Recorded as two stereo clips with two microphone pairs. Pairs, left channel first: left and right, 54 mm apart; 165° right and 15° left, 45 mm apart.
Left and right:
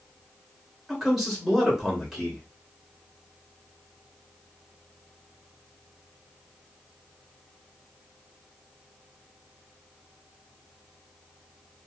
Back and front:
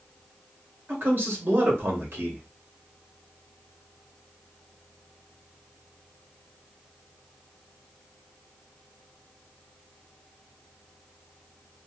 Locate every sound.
0.9 s a man speaking: straight ahead, 1.8 m